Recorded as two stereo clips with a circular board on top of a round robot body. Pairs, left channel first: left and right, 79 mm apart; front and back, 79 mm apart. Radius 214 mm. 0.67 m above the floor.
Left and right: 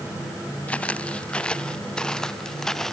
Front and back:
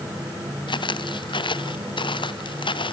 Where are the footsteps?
15° left; by 2.9 s 5° left.